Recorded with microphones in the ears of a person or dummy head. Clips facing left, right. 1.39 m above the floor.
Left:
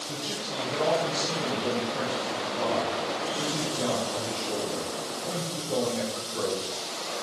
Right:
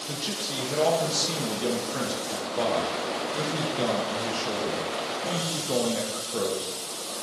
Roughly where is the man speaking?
Right.